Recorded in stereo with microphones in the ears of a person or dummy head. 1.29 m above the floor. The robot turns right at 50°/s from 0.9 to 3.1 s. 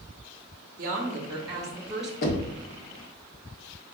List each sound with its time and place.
0.8 s a woman speaking: 60° right, 0.7 m; by 2.1 s straight ahead, 0.7 m
2.2 s knocking: 50° left (ahead or behind), 0.7 m; by 2.6 s 60° left (ahead or behind), 0.7 m